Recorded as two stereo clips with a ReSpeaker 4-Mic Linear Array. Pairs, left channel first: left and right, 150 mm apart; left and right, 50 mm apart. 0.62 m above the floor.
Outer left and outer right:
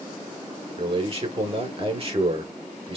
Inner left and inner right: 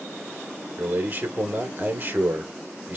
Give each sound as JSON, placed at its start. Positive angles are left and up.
{"t": 0.8, "sound": "a man speaking", "side_deg": -40, "distance_m": 1.8}